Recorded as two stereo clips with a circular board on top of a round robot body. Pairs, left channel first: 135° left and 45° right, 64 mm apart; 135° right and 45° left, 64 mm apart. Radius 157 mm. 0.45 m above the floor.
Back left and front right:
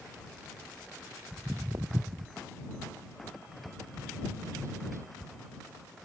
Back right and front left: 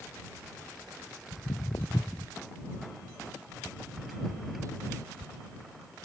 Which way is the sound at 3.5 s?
Straight ahead.